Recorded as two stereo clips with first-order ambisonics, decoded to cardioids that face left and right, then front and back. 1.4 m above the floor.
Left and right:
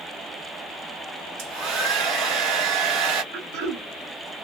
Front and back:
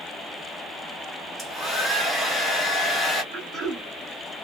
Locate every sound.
1.4 s a hair dryer: 80° right, 1.5 m
3.3 s throat clearing: 110° right, 1.8 m